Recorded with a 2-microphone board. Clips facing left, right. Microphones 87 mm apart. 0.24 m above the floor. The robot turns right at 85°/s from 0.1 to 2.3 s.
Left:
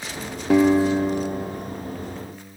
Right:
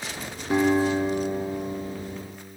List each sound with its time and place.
0.5 s a guitar: 95° left, 1.7 m; by 2.2 s 120° right, 1.7 m